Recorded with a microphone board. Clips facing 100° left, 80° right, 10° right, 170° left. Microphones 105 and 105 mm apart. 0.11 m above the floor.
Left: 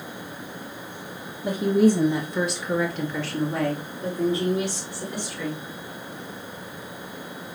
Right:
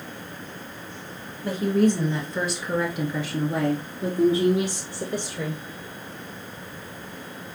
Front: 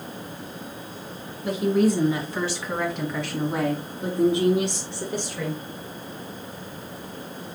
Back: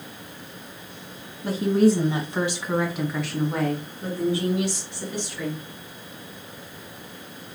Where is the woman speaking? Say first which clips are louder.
Left 2 dB, back 2 dB; 165° left, 1.9 m; by 5.6 s 50° right, 2.5 m.